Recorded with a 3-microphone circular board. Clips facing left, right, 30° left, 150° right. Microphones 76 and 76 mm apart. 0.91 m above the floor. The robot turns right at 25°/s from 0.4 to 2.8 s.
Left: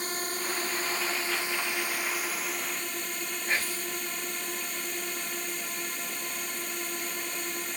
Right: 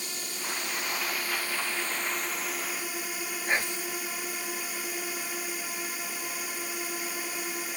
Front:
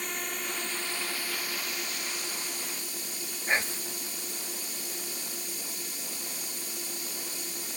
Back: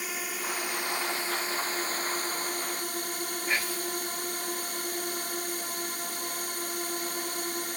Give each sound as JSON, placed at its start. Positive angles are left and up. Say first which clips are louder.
{"t": 0.0, "sound": "a drone", "louder": "left 5 dB, back 1 dB", "azimuth_deg": 130}
{"t": 3.5, "sound": "whispering", "louder": "right 2 dB, front 2 dB", "azimuth_deg": -30}